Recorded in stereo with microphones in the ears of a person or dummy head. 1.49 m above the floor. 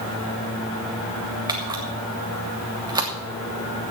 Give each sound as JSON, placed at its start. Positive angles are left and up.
{"t": 1.5, "sound": "a camera shutter", "side_deg": -30, "distance_m": 1.6}